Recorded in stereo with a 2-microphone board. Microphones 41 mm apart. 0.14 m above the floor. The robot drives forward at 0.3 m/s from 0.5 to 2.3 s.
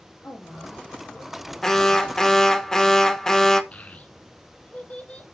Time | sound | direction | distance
0.2 | a woman speaking | 70° left (ahead or behind) | 3.5 m
1.6 | an alarm | 15° left (ahead or behind) | 0.9 m
3.7 | a child speaking | 35° left (ahead or behind) | 1.0 m